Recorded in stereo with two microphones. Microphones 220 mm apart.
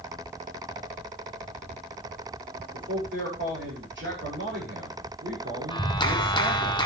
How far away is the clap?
About 1.5 m.